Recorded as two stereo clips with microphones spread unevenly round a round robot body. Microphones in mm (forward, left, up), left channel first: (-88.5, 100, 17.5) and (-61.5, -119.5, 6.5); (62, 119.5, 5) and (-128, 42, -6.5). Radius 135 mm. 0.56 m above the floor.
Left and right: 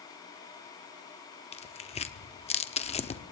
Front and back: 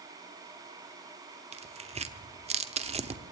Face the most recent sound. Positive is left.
turn(degrees=155)